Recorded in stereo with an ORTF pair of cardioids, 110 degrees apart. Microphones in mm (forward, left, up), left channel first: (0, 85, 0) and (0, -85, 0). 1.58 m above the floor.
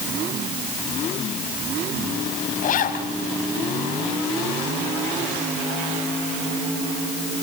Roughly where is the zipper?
Ahead left.